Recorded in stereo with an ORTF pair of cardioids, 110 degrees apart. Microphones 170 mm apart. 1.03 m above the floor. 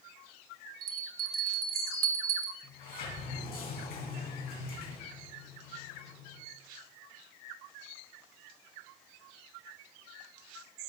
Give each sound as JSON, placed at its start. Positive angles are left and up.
{"t": 0.8, "sound": "a bell", "azimuth_deg": -60, "distance_m": 0.9}
{"t": 2.6, "sound": "a sliding door", "azimuth_deg": 70, "distance_m": 3.0}